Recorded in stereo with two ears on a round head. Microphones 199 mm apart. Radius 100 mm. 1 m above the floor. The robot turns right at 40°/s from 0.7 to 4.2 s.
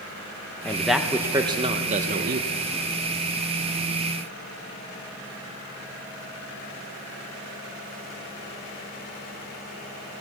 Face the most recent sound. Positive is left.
turn(degrees=-45)